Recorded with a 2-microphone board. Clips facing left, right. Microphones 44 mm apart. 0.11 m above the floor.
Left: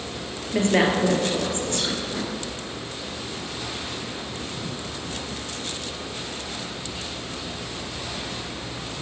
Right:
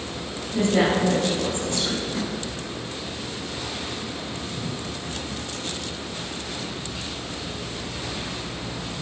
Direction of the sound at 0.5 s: 45° left (ahead or behind).